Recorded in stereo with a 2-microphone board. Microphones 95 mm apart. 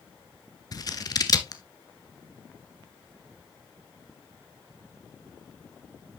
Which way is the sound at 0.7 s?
40° left (ahead or behind).